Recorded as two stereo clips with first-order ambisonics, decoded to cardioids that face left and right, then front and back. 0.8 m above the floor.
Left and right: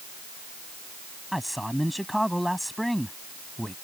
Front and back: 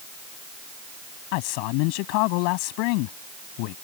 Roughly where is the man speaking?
Ahead.